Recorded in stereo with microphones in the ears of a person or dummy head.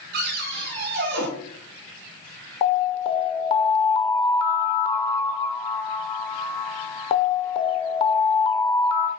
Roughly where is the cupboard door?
Right.